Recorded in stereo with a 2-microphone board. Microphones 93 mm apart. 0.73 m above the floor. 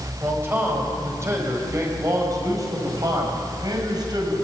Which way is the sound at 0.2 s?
25° right (ahead or behind).